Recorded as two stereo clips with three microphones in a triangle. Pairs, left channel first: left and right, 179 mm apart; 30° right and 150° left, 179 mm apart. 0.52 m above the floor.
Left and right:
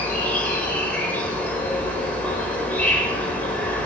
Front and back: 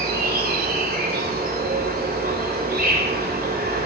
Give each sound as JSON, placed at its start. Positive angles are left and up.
{"t": 0.0, "sound": "an insect", "azimuth_deg": 170, "distance_m": 2.0}